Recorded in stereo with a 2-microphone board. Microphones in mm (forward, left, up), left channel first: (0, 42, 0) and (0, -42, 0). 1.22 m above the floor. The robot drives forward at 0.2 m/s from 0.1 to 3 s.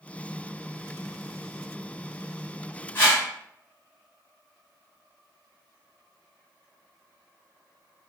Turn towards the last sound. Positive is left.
turn(degrees=25)  # may be behind; listen again after turning